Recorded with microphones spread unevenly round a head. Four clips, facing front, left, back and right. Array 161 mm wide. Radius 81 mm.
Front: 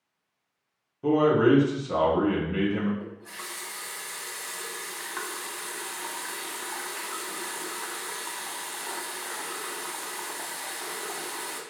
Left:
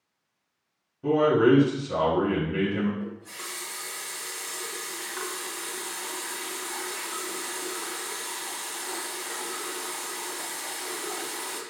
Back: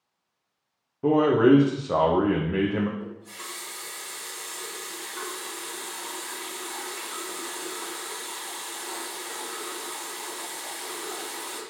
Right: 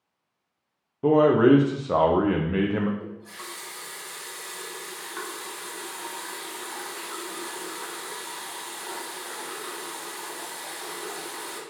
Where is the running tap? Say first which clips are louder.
Left 2 dB, back 1 dB; 10° right, 1.4 m.